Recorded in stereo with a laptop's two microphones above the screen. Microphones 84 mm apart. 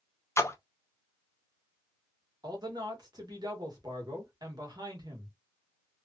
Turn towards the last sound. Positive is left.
turn(degrees=-55)  # may be behind; listen again after turning